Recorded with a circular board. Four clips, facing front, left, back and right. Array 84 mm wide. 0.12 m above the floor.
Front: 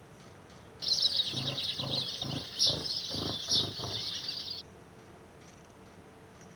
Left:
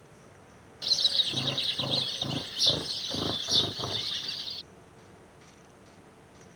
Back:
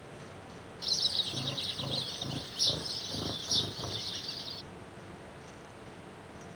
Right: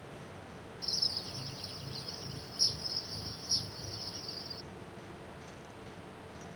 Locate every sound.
0.8 s a bird: 85° left